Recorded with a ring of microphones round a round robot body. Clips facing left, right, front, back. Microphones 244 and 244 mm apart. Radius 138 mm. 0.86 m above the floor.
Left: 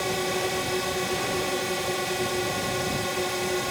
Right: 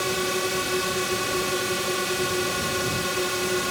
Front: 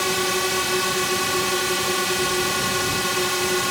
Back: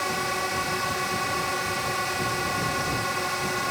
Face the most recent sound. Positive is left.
turn(degrees=-15)